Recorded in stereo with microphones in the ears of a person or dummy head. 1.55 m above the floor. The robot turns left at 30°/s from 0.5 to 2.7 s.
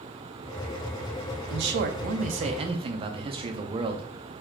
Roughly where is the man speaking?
Behind right.